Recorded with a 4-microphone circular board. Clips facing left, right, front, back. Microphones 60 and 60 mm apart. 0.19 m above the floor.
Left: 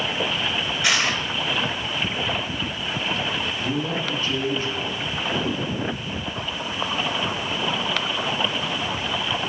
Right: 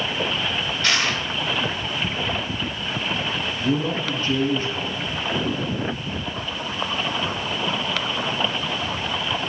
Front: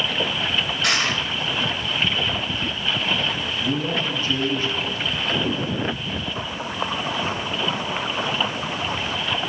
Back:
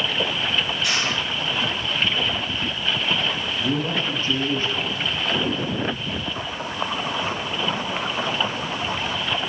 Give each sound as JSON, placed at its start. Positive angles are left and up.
{"t": 0.8, "sound": "crushing", "azimuth_deg": 15, "distance_m": 2.0}
{"t": 3.6, "sound": "a man speaking", "azimuth_deg": -135, "distance_m": 2.5}